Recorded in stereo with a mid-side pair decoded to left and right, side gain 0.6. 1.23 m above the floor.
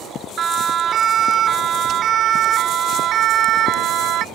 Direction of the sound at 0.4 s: 35° right.